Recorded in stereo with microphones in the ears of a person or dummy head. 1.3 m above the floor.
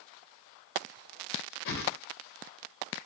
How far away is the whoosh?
About 1.8 m.